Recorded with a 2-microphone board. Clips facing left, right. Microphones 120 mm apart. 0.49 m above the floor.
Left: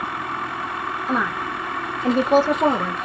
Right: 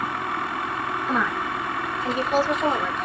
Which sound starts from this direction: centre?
A woman speaking, at 1.1 s.